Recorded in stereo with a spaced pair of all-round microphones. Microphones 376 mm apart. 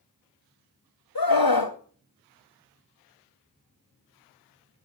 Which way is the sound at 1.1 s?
70° left (ahead or behind).